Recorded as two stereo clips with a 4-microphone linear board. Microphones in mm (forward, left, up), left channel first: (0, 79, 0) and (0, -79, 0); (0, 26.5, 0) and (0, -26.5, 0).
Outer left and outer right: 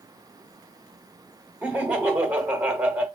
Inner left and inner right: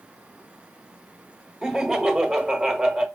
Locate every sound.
1.6 s laughter: 10° right (ahead or behind), 1.3 m